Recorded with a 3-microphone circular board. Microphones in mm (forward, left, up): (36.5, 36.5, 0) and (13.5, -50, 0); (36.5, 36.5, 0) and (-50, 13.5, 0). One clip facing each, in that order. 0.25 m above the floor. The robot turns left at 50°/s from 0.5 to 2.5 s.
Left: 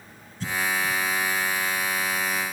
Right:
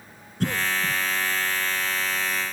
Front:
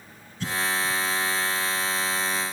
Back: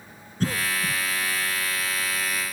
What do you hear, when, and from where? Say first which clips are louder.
0.4 s a cough: right 1 dB, back 1 dB; 120° right; by 1.0 s 145° right